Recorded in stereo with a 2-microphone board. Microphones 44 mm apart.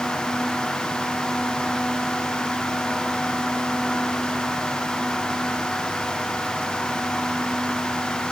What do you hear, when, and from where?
Only background noise.